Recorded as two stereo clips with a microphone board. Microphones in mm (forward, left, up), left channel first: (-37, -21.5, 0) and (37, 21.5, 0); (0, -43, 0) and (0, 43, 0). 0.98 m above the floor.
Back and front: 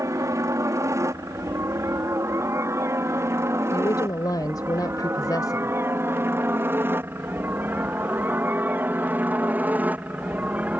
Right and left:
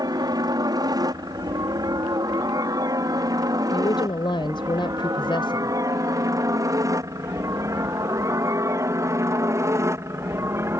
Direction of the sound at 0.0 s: 75° left.